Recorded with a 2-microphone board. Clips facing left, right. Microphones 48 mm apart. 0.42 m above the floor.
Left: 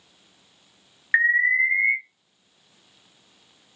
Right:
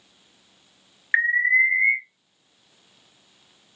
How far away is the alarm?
About 1.1 m.